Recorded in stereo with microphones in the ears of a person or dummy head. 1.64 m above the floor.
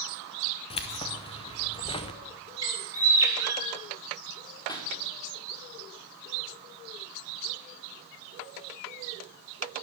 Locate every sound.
0.7 s keys jangling: 25° left (ahead or behind), 0.7 m
2.6 s a bird: 15° right (ahead or behind), 3.5 m
4.7 s a pop: 20° left (ahead or behind), 2 m